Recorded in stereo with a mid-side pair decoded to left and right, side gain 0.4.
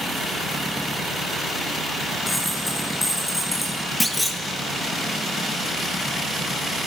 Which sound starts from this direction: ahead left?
A dropped coin, at 2.3 s.